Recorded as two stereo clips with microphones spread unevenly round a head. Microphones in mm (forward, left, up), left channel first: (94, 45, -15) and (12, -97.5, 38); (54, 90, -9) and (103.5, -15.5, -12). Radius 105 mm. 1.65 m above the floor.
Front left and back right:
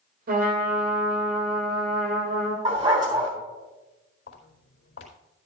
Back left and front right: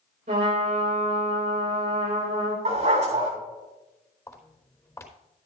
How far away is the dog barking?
About 3.5 m.